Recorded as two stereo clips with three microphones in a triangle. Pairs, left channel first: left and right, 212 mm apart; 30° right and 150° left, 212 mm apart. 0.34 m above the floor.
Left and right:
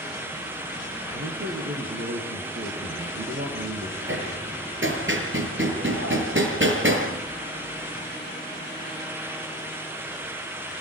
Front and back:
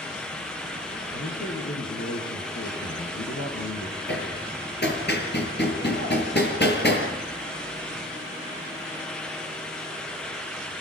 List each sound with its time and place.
1.1 s a man speaking: 45° right, 6.5 m
4.1 s hammering: 65° right, 5.5 m